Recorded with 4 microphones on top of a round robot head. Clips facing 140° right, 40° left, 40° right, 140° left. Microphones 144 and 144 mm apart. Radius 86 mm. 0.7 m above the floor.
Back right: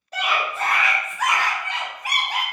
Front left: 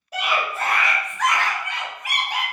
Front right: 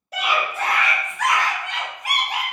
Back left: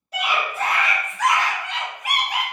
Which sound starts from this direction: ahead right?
A scream, at 0.1 s.